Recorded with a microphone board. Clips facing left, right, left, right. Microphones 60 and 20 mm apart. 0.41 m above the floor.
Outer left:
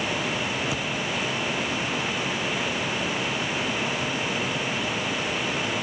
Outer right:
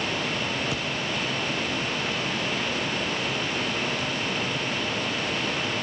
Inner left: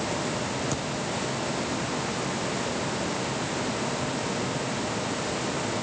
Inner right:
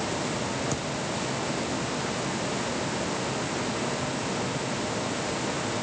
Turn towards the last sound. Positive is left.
turn(degrees=0)  # may be behind; listen again after turning